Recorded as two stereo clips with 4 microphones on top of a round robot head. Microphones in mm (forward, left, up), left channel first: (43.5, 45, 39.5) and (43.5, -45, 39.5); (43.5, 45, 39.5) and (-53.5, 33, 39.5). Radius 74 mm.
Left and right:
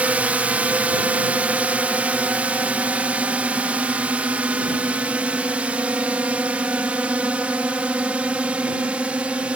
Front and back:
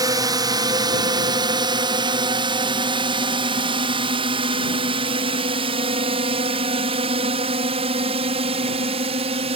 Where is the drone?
155° right; by 9.6 s 170° right.